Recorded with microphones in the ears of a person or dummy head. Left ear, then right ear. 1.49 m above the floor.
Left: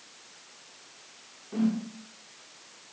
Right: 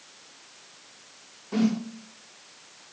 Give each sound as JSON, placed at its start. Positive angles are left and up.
{"t": 1.5, "sound": "a whoosh", "side_deg": -75, "distance_m": 0.6}